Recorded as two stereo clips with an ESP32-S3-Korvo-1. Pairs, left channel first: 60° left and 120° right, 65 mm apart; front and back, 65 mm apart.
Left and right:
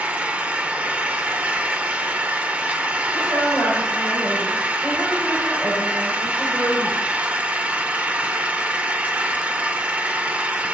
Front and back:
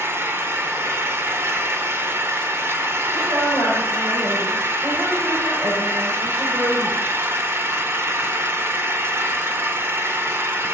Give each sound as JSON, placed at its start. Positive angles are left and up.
{"t": 0.0, "sound": "an engine running", "azimuth_deg": -175, "distance_m": 1.1}
{"t": 3.1, "sound": "a woman speaking", "azimuth_deg": 170, "distance_m": 6.0}